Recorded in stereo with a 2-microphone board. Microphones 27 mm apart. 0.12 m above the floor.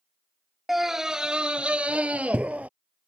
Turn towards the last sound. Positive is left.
turn(degrees=-60)  # may be behind; listen again after turning